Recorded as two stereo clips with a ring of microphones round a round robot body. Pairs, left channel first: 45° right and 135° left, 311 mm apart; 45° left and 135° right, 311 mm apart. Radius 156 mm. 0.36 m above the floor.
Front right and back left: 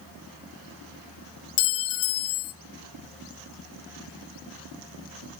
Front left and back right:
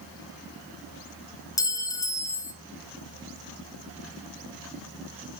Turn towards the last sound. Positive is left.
turn(degrees=-25)